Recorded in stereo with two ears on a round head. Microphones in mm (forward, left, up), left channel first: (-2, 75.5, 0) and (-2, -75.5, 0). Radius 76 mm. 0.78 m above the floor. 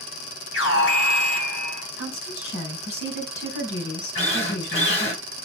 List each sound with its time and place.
0.5 s an alarm: 80° left, 3.5 m
2.0 s a woman speaking: 70° left (ahead or behind), 4.5 m
4.2 s a drill: 40° left (ahead or behind), 5.5 m